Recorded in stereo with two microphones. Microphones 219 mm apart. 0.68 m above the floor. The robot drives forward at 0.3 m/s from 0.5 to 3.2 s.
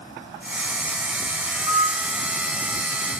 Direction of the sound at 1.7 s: 70° left (ahead or behind).